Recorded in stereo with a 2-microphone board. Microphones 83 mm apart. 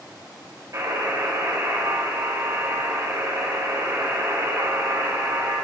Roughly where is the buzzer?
Right.